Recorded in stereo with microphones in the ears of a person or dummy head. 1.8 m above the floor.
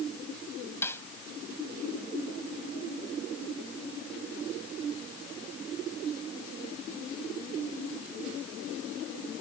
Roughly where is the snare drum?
Centre.